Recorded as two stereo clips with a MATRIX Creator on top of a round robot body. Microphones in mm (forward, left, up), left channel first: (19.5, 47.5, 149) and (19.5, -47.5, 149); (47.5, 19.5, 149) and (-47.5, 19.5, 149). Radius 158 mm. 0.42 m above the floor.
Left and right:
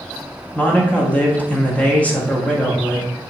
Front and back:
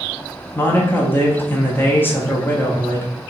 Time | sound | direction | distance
0.6 | a man speaking | 35° left | 0.8 m